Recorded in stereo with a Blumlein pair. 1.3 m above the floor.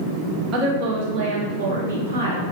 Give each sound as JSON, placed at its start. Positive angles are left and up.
{"t": 0.5, "sound": "a woman speaking", "azimuth_deg": -30, "distance_m": 1.3}